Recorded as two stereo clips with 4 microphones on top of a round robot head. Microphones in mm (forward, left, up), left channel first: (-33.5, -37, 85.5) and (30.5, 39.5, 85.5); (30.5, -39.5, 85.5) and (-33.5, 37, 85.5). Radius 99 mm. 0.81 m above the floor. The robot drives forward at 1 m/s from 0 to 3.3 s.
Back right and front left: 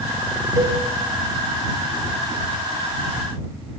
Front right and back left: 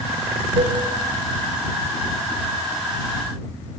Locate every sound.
0.6 s a cowbell: 100° left, 4.5 m; by 0.8 s 105° left, 4.5 m